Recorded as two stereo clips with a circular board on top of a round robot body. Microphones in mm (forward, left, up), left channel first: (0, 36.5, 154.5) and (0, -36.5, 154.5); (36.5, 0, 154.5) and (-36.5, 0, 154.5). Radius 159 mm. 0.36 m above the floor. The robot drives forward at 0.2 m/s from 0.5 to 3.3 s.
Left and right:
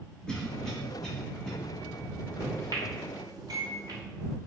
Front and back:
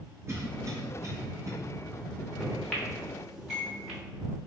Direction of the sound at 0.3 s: 170° left.